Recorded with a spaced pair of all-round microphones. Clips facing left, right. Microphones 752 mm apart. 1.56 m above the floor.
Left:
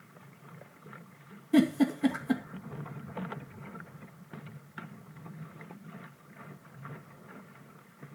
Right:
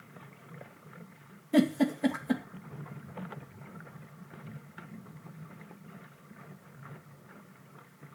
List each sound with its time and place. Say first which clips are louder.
1.5 s a giggle: left 1 dB; 15° right (ahead or behind), 2 m